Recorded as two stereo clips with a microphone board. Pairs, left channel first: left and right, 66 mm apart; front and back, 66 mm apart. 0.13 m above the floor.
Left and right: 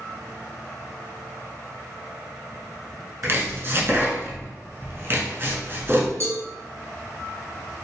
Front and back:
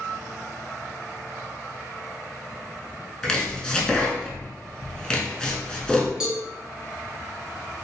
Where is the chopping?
70° right, 0.6 m.